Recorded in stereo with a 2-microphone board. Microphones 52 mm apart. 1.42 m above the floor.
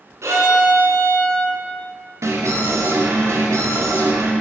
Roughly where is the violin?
Right.